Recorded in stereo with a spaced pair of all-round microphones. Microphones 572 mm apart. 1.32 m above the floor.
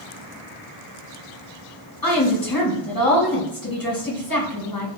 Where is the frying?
I don't hear frying.